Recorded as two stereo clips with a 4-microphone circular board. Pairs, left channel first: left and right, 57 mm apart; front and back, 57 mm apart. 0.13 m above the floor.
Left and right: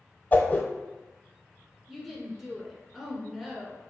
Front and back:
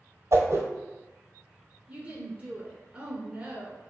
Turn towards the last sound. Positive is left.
turn(degrees=-170)